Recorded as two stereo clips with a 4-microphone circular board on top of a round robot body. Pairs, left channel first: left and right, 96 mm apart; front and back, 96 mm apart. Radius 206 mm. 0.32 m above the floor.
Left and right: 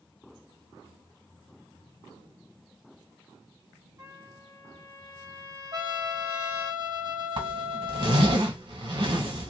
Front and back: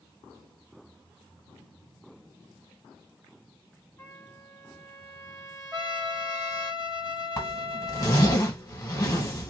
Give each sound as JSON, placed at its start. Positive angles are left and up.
{"t": 4.0, "sound": "a trumpet", "azimuth_deg": -60, "distance_m": 1.9}
{"t": 5.7, "sound": "a trumpet", "azimuth_deg": -100, "distance_m": 2.0}
{"t": 7.4, "sound": "a zipper", "azimuth_deg": -60, "distance_m": 1.5}